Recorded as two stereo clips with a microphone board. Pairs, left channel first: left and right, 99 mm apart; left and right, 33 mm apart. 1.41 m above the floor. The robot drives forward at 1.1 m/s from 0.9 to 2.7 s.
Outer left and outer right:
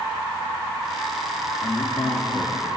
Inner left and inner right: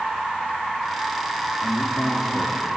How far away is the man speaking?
About 3.5 m.